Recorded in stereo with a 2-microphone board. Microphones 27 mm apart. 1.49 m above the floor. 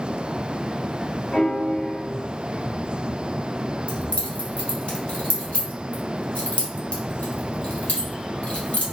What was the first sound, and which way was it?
A piano, 30° left (ahead or behind).